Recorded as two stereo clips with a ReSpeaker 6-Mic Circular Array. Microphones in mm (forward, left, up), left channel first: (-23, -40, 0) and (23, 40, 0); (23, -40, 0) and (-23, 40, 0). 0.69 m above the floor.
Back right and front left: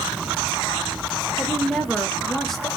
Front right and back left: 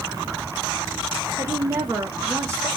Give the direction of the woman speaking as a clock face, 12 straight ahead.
7 o'clock.